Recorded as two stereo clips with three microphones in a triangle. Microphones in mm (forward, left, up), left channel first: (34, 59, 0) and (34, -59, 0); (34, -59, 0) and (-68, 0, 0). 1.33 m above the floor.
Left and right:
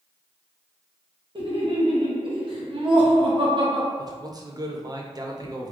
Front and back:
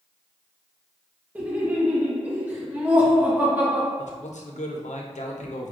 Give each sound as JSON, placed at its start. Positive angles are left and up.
{"t": 1.4, "sound": "laughter", "azimuth_deg": -135, "distance_m": 1.0}
{"t": 4.0, "sound": "a man speaking", "azimuth_deg": -35, "distance_m": 0.6}